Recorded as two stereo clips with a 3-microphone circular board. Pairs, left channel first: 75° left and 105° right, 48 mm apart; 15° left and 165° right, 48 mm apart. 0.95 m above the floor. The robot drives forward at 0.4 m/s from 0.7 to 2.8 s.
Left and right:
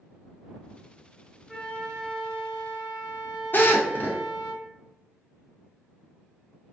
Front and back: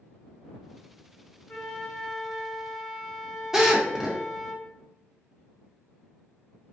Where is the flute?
5° right, 0.9 m; by 4.5 s 65° right, 0.7 m.